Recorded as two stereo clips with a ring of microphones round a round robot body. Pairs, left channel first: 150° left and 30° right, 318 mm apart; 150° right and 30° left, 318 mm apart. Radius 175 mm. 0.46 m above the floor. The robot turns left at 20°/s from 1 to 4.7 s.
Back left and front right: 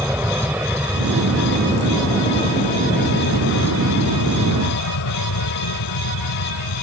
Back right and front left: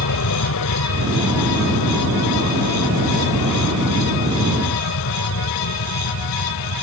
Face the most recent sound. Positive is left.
turn(degrees=170)